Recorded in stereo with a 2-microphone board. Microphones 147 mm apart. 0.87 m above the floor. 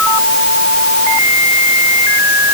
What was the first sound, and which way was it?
Only background noise.